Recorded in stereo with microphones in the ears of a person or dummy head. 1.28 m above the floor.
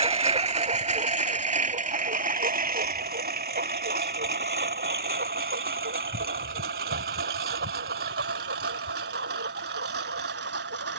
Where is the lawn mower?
25° right (ahead or behind); by 11.0 s 55° right (ahead or behind).